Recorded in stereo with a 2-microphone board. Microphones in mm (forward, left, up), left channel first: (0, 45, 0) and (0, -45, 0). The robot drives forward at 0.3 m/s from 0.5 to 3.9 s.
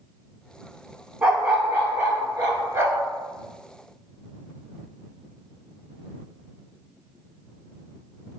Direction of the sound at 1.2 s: 20° right (ahead or behind).